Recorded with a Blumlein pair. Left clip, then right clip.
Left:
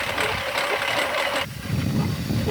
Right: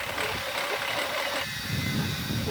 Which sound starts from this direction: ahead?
A lawn mower, at 0.0 s.